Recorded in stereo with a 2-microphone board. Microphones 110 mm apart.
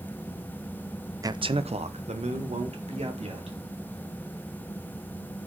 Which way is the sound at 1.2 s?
30° right (ahead or behind).